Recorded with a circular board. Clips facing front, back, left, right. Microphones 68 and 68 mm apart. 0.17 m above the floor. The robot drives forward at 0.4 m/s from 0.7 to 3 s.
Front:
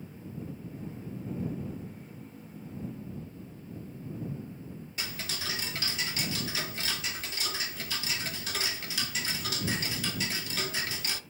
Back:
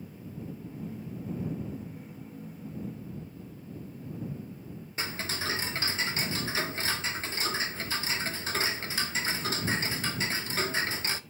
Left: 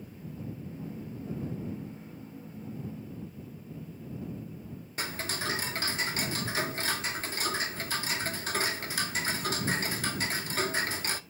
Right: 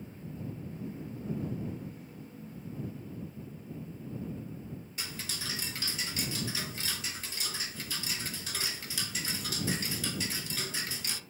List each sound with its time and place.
5.0 s ticking: 130° left, 0.6 m